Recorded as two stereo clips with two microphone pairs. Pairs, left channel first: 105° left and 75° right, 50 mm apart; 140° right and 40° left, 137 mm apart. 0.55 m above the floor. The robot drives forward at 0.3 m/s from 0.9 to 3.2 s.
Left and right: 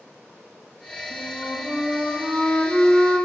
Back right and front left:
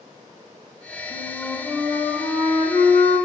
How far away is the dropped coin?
No dropped coin in this recording.